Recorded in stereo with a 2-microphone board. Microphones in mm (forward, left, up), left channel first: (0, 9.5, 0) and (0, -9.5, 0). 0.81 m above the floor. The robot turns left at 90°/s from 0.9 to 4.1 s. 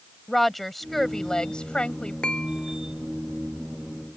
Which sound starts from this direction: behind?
A woman speaking, at 0.3 s.